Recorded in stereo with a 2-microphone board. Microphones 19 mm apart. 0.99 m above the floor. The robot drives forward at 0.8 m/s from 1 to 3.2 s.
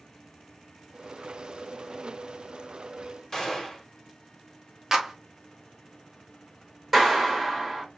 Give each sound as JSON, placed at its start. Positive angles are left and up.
{"t": 3.3, "sound": "a gunshot", "side_deg": 20, "distance_m": 1.2}
{"t": 4.9, "sound": "a clap", "side_deg": -20, "distance_m": 0.8}
{"t": 6.9, "sound": "a clap", "side_deg": -10, "distance_m": 2.5}